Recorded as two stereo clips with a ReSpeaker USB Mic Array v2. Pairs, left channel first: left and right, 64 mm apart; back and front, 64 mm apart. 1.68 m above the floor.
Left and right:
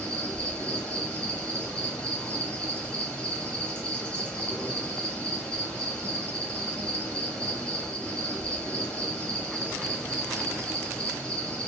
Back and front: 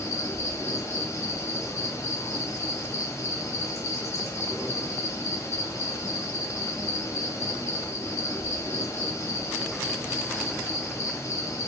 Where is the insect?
160° left, 0.8 m.